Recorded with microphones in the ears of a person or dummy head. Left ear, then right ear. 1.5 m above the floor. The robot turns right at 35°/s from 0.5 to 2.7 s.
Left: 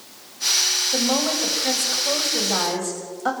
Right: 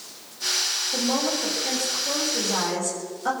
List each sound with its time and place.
0.9 s a woman speaking: 90° left, 7 m; by 3.3 s 155° left, 7 m